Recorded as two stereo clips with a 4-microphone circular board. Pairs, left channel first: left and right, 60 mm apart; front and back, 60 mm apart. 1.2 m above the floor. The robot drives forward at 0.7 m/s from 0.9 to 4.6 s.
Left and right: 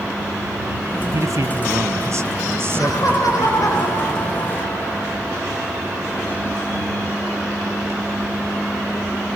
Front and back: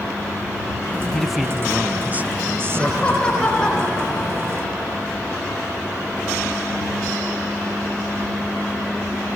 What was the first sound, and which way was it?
A man speaking, 85° right.